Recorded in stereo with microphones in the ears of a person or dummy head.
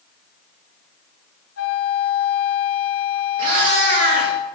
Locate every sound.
1.6 s a flute: 80° left, 1.6 m
3.4 s a cat meowing: 45° right (ahead or behind), 1.7 m